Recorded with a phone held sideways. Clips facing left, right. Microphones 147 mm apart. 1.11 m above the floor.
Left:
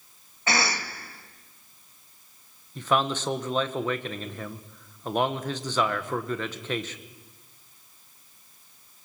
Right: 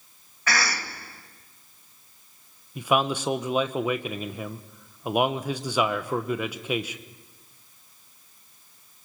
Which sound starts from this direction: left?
A cough, at 0.5 s.